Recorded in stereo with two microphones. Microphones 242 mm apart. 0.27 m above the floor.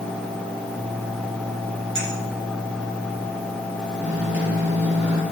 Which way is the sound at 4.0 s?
50° right (ahead or behind).